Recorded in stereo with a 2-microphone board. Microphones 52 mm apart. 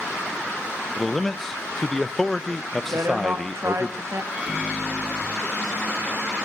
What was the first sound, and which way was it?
A man speaking, 10° left (ahead or behind).